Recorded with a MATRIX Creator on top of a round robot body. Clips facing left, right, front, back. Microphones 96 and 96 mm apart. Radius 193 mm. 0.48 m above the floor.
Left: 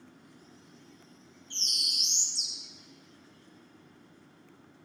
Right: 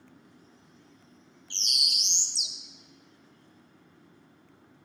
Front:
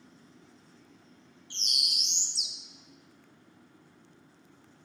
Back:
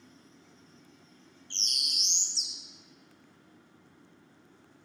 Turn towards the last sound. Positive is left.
turn(degrees=-80)